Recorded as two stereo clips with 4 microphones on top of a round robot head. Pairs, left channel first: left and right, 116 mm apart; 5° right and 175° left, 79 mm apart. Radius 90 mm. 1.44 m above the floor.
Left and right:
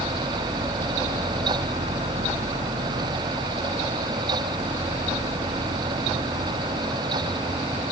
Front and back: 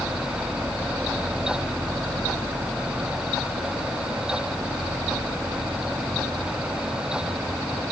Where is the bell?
No bell in this recording.